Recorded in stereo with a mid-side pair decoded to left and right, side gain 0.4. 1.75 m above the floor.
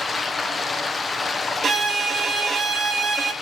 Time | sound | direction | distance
0.0 | running water | 35° left | 1.1 m
1.6 | a violin | 45° right | 1.2 m